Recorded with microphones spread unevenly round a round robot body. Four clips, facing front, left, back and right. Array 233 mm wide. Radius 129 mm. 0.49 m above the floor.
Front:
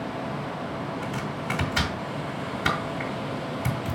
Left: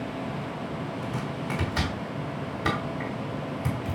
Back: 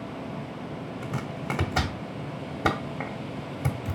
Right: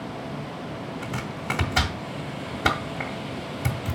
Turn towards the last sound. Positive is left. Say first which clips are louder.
# even, front 2 dB
turn(degrees=-150)